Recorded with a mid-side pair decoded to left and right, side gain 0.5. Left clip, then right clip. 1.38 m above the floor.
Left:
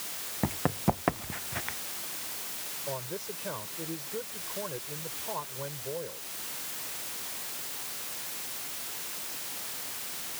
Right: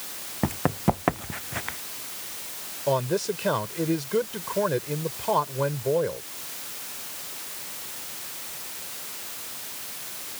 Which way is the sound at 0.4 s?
20° right.